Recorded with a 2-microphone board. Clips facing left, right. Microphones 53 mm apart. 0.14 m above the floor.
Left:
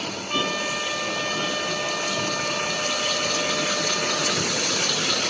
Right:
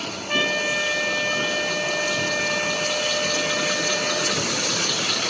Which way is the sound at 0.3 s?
70° right (ahead or behind).